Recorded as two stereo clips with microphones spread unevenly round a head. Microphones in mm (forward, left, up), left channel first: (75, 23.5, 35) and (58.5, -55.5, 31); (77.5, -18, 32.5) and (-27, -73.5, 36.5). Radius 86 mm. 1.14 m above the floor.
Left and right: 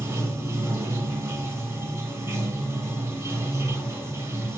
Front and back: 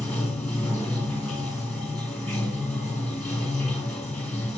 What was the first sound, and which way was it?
Running water, 60° right.